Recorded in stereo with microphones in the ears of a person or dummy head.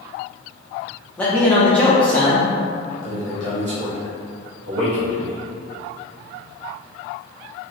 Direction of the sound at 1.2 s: 10° left (ahead or behind).